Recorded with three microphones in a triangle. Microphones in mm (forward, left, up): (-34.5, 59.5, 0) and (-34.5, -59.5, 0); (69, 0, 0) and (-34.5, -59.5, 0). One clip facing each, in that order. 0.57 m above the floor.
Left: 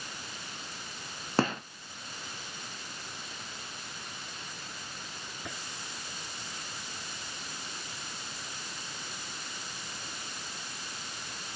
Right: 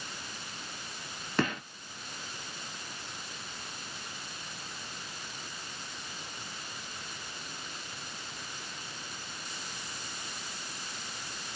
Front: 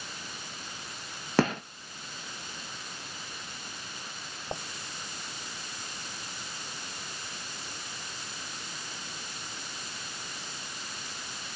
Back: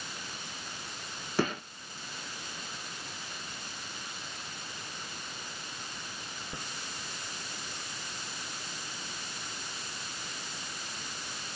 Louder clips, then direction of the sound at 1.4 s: Left 2 dB, front 5 dB; 35° left.